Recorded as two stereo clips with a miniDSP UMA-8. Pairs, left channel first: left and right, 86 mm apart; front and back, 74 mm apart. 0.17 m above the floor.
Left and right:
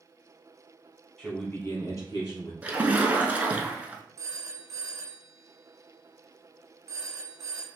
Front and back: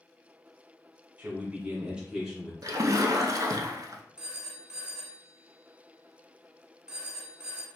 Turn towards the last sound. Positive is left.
turn(degrees=-110)